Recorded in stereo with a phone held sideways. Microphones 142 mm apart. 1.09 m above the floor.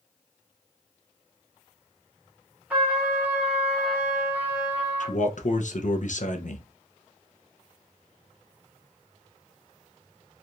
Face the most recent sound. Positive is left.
turn(degrees=65)  # may be behind; listen again after turning